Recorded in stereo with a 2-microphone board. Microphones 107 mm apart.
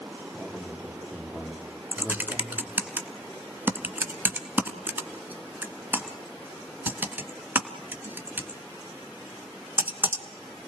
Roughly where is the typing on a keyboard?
Centre.